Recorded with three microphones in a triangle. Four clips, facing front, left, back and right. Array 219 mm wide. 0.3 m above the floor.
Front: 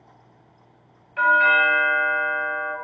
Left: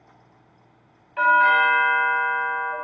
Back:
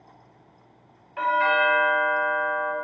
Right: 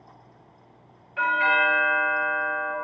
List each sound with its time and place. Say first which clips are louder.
1.2 s a doorbell: left 5 dB, front 4 dB; 120° left, 1.7 m